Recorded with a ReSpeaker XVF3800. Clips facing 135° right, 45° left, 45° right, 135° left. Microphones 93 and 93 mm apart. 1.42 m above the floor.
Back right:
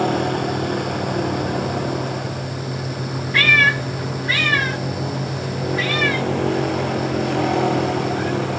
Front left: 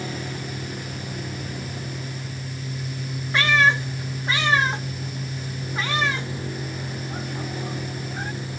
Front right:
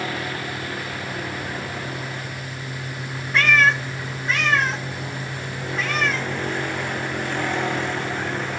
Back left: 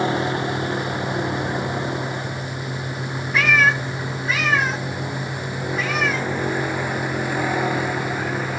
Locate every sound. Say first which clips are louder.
0.0 s a vehicle: back right 13 dB, back left 7 dB; 160° right; by 8.6 s 140° right
3.3 s a cat meowing: even, even; 50° left